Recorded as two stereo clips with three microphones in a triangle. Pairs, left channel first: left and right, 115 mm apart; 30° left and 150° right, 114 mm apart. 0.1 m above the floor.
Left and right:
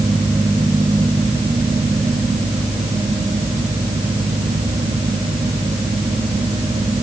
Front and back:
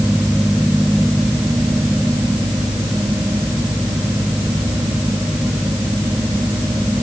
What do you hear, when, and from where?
Only background noise.